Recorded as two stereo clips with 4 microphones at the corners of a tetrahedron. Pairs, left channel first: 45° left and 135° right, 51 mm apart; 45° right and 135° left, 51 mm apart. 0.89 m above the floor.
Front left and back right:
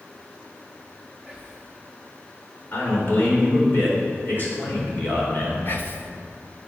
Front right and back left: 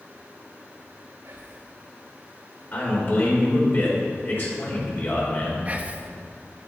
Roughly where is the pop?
No pop in this recording.